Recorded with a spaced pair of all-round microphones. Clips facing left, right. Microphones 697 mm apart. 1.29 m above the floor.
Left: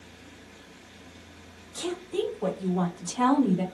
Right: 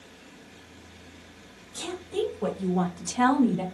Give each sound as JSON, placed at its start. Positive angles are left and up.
{"t": 1.7, "sound": "a woman speaking", "side_deg": -25, "distance_m": 1.3}